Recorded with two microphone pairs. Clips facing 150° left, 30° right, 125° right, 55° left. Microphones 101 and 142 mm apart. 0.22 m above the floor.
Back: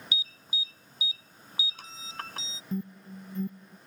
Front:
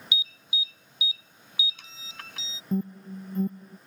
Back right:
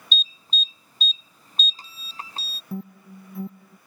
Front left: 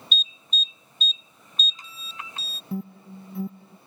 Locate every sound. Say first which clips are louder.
0.1 s an alarm: front 4 dB, back right 3 dB; 170° right
2.7 s an alarm: front 6 dB, front left 2 dB; 30° right